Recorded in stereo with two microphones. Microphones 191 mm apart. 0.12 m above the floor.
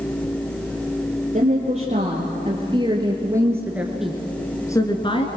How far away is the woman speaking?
About 3.5 m.